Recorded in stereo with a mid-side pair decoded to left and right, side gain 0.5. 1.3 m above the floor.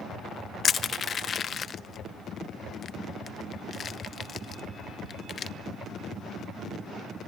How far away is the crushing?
About 0.9 m.